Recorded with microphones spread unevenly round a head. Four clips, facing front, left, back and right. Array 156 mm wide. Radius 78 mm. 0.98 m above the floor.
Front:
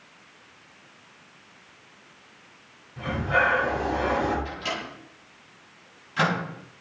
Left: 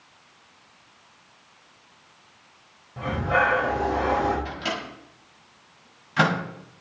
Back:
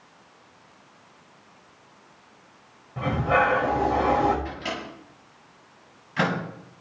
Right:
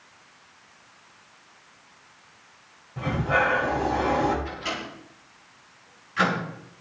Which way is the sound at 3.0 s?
175° left.